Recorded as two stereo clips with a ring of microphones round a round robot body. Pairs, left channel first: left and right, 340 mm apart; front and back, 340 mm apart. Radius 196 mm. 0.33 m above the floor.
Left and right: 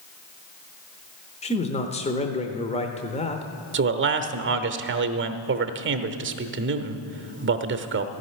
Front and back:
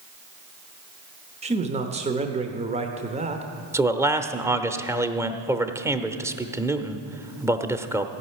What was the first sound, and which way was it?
A man speaking, 135° left.